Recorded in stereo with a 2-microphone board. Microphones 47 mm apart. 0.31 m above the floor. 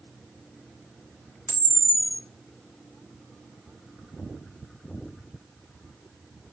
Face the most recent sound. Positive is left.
turn(degrees=70)  # may be behind; listen again after turning